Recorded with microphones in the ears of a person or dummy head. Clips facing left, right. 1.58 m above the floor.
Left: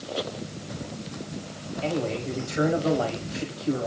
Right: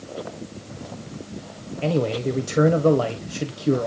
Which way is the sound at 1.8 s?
60° right (ahead or behind).